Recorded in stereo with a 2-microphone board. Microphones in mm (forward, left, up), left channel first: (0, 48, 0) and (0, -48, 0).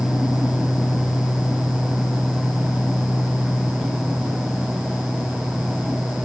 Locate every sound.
Only background noise.